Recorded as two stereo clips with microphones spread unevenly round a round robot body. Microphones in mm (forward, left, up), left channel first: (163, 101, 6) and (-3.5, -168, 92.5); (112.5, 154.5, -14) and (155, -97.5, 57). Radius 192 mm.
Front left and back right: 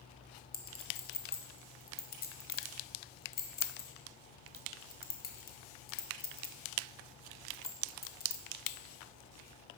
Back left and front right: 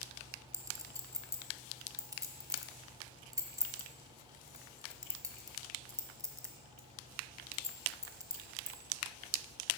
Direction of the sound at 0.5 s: 5° left.